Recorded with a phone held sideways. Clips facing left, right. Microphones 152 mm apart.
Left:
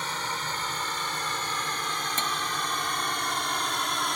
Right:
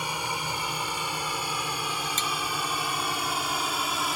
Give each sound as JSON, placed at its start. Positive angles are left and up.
{"t": 0.0, "sound": "a drone", "side_deg": -10}
{"t": 2.2, "sound": "cutlery clinking", "side_deg": 60}